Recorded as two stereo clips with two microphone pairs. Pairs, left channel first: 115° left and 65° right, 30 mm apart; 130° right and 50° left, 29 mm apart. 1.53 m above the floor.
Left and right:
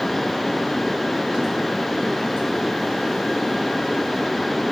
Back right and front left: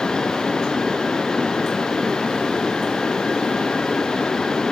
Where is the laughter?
I don't hear laughter.